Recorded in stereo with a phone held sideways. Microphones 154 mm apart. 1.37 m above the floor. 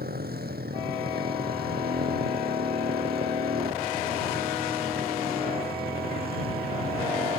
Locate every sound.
0.0 s a motorcycle: 90° right; by 7.4 s 85° right